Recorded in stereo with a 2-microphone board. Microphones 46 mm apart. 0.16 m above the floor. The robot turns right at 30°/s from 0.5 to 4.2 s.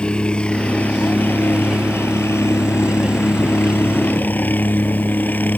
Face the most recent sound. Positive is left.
turn(degrees=135)